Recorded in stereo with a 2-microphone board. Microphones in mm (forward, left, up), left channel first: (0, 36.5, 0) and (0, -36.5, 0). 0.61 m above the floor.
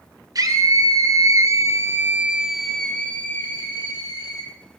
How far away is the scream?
About 2.5 m.